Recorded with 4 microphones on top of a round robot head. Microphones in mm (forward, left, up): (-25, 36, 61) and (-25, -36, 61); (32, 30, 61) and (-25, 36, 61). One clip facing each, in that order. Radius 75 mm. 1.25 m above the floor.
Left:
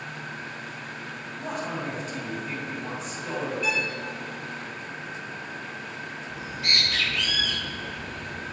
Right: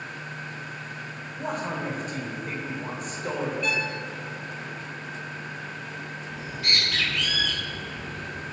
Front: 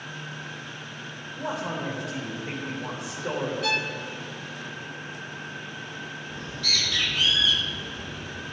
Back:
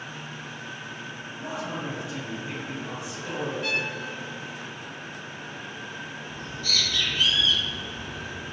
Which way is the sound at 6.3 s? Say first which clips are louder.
Even, even; straight ahead.